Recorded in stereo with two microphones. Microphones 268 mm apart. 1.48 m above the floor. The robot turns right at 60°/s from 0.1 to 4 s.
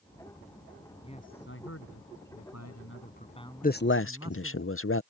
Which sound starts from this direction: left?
A man speaking, at 3.6 s.